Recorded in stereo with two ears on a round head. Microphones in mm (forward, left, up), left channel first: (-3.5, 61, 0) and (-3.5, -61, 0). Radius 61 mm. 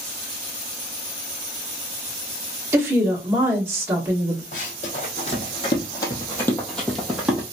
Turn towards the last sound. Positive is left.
turn(degrees=-5)  # may be behind; listen again after turning